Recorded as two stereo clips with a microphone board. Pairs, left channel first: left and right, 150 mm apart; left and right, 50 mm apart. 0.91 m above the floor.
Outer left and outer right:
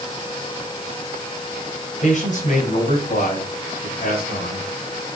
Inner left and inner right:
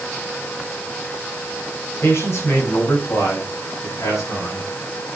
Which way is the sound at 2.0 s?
55° left (ahead or behind).